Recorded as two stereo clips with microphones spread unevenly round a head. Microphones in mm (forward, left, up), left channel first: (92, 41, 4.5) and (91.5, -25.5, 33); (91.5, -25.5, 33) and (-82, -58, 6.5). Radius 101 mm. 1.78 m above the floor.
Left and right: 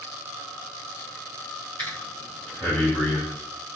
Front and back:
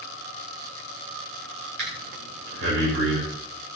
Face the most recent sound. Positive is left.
turn(degrees=-150)